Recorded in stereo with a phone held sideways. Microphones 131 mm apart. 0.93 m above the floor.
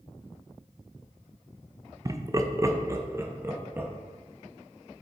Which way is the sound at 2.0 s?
25° right (ahead or behind).